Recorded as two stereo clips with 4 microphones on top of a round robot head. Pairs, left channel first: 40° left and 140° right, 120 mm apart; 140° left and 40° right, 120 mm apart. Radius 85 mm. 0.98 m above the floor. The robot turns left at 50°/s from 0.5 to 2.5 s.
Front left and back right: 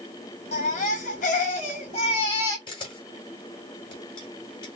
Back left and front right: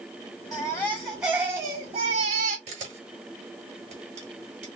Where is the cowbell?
I don't hear a cowbell.